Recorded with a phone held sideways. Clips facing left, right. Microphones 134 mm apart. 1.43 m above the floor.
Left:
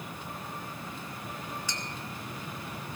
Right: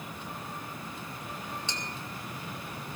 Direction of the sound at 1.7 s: 25° right (ahead or behind).